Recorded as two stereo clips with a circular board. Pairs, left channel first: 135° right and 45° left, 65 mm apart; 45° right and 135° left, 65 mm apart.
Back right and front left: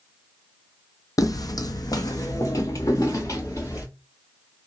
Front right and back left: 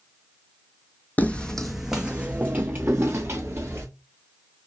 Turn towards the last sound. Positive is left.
turn(degrees=-175)